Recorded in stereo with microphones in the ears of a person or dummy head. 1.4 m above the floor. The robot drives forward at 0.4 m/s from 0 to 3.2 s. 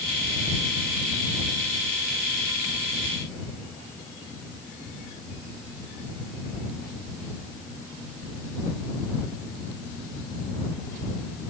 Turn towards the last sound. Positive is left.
No sound to turn to.